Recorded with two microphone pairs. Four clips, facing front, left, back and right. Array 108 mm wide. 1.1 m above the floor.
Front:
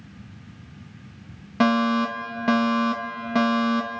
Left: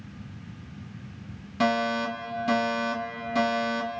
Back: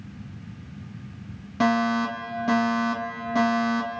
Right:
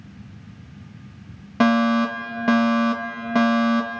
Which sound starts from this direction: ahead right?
A fire alarm, at 1.6 s.